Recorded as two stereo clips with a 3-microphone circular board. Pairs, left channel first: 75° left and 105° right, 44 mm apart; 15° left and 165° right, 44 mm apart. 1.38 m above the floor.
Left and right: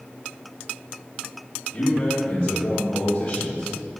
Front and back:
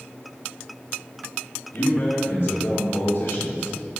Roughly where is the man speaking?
Ahead left.